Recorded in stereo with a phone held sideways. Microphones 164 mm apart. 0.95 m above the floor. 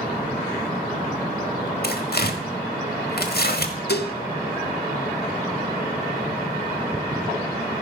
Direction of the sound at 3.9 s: 80° left.